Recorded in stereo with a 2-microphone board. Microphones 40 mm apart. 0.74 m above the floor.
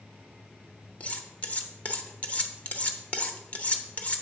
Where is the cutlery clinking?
35° left (ahead or behind), 0.7 m.